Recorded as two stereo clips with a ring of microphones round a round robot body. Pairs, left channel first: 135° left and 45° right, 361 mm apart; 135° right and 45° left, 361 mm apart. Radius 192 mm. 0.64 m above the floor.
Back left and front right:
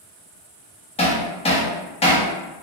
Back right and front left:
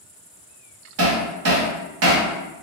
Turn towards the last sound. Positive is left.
turn(degrees=70)